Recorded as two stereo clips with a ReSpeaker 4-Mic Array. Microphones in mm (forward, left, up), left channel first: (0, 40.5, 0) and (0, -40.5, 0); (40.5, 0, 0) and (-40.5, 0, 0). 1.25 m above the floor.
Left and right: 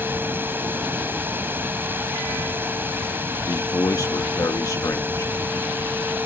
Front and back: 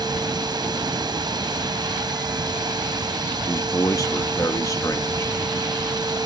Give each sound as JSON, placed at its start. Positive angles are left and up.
{"t": 0.0, "sound": "running water", "azimuth_deg": -155}
{"t": 3.5, "sound": "a man speaking", "azimuth_deg": 45}